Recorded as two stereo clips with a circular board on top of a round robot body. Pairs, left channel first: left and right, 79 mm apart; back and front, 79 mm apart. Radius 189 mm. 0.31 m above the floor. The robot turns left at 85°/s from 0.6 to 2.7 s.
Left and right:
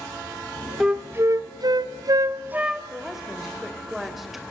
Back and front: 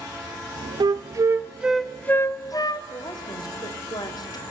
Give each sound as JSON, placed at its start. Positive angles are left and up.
{"t": 0.8, "sound": "a flute", "azimuth_deg": -5, "distance_m": 0.8}
{"t": 2.9, "sound": "a woman speaking", "azimuth_deg": -175, "distance_m": 2.5}